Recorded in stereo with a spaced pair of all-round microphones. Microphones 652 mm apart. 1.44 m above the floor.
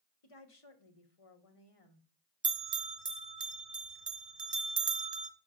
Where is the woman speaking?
55° left (ahead or behind), 1.5 m.